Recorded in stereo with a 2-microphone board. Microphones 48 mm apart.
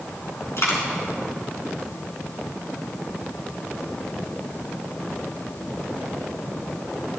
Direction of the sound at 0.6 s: 65° left (ahead or behind).